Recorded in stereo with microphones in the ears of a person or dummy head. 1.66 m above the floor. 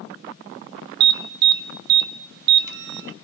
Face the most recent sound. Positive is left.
turn(degrees=-55)  # may be behind; listen again after turning